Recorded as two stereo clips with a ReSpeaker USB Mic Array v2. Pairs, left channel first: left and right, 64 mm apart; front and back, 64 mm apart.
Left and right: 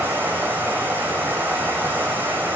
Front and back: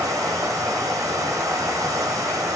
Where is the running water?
150° right, 3 m.